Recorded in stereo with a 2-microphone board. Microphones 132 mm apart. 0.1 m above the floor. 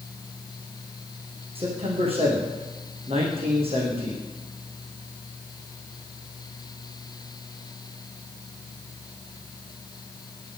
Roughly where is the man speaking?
Right.